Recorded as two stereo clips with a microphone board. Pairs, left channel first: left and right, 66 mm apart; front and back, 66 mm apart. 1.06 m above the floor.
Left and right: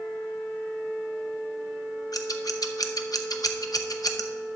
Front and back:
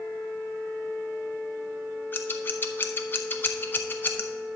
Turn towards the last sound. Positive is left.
turn(degrees=60)